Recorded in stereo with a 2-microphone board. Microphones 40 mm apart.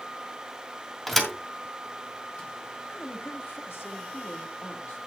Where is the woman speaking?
70° left (ahead or behind), 3 m.